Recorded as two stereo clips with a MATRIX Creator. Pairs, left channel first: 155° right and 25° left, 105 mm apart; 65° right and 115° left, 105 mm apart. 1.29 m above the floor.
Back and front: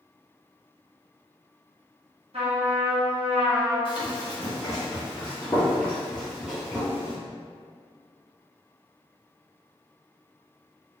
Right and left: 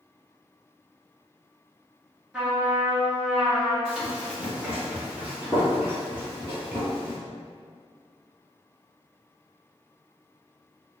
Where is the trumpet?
30° left, 1.1 m.